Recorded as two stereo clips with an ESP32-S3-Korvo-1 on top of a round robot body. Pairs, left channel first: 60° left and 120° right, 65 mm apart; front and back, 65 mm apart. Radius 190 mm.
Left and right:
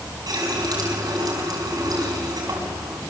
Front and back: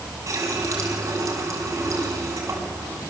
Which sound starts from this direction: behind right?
A running tap, at 0.3 s.